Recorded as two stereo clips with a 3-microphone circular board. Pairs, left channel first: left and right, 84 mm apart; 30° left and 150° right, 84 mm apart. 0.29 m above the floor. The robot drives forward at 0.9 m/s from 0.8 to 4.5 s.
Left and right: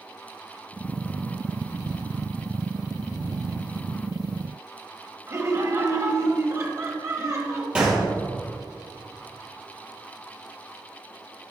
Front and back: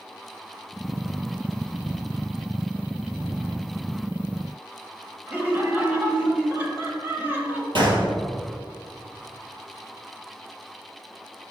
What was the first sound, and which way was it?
Laughter, 95° right.